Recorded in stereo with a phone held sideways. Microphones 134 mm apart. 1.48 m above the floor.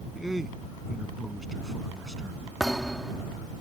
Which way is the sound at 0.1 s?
Centre (ahead or behind).